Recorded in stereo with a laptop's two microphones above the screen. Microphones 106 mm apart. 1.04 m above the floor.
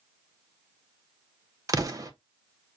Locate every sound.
1.7 s an explosion: 30° right (ahead or behind), 0.7 m